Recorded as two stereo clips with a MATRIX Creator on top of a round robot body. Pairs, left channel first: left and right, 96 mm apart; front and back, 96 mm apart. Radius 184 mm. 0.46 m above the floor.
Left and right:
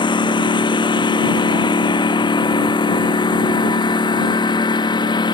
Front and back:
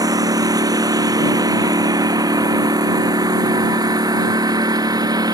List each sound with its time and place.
0.0 s a lawn mower: 130° left